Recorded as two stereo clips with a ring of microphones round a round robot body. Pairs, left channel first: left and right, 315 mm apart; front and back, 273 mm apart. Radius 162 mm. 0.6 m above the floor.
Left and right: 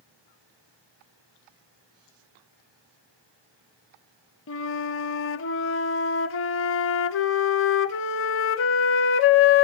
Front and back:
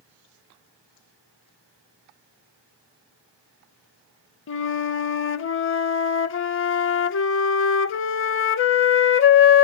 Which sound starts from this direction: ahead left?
A flute, at 4.5 s.